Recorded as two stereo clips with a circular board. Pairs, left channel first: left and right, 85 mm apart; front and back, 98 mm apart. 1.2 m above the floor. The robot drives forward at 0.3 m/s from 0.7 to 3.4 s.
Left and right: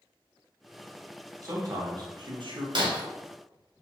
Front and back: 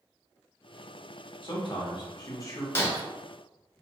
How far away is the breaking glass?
About 0.6 m.